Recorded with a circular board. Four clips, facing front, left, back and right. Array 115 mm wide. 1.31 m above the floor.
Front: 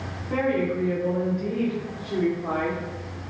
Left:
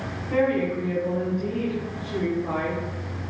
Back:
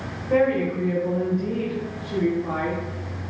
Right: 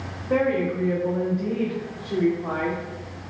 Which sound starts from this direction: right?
A woman speaking, at 0.3 s.